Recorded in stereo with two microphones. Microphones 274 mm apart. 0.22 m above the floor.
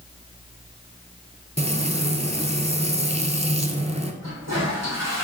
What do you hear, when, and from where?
1.6 s frying: 25° right (ahead or behind), 0.7 m
4.2 s a toilet flushing: 70° right (ahead or behind), 3 m